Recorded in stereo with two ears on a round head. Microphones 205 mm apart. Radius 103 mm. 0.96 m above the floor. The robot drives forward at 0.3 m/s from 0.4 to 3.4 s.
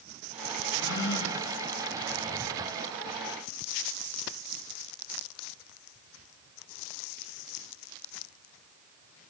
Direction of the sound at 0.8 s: 55° left (ahead or behind).